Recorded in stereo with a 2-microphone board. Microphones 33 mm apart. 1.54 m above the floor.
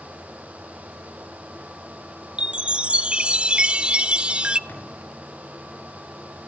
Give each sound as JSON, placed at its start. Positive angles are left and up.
{"t": 2.4, "sound": "a chime", "side_deg": -30, "distance_m": 0.5}
{"t": 4.7, "sound": "a drawer", "side_deg": 85, "distance_m": 7.5}